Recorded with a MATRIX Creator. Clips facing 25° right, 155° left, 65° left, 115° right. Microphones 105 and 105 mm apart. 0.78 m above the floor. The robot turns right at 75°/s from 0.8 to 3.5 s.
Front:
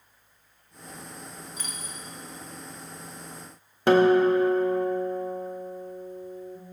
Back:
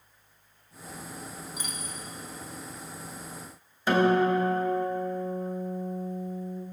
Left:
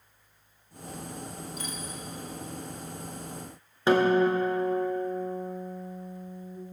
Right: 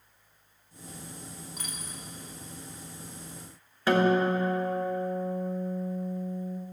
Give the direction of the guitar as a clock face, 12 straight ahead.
12 o'clock.